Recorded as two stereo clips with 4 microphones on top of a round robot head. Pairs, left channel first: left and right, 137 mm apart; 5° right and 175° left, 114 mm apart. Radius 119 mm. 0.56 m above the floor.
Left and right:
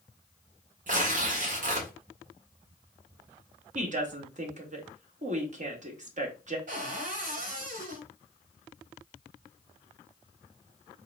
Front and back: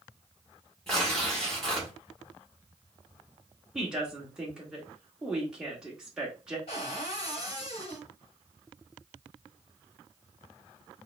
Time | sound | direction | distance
0.9 | tearing paper | 90° right | 1.8 m
3.8 | a woman speaking | 105° right | 1.7 m
6.7 | a cupboard door | 55° right | 1.1 m